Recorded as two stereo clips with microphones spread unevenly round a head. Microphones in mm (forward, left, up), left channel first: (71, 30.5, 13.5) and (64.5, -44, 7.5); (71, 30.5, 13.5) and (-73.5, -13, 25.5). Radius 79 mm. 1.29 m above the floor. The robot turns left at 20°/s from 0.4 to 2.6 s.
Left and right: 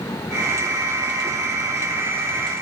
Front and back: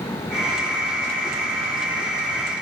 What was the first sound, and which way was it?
Only background noise.